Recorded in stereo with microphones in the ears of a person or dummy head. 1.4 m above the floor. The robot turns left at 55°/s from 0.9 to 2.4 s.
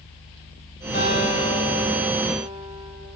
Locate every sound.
0.9 s a guitar: 40° left, 6.5 m; by 2.9 s 40° right, 6.5 m